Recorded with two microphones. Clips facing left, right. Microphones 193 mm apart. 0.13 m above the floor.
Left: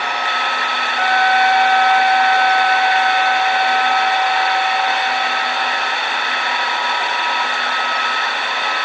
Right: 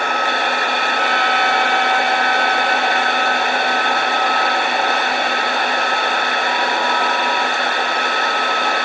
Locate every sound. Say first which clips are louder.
1.0 s a trumpet: left 7 dB; 50° left (ahead or behind)